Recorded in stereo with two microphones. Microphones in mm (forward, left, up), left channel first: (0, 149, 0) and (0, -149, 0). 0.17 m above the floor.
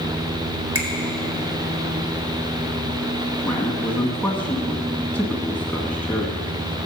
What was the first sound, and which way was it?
A finger snap, 55° right (ahead or behind).